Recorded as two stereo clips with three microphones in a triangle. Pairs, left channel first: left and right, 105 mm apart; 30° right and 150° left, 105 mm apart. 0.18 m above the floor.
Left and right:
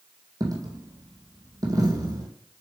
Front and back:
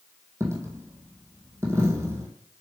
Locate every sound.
0.4 s a dropped coin: 145° right, 2 m